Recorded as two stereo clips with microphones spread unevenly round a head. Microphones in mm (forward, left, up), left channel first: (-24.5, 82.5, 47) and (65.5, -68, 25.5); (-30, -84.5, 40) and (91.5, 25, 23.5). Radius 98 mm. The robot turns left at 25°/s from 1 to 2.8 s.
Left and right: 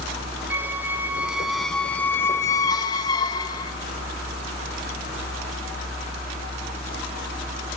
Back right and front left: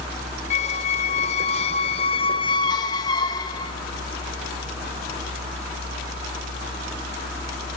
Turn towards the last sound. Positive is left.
turn(degrees=170)